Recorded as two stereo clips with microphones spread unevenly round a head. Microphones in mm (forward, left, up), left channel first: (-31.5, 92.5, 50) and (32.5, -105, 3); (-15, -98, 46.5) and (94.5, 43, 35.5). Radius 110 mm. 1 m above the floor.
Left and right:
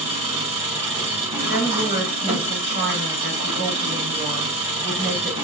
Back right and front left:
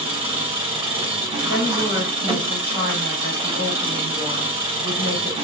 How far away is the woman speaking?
About 2.5 m.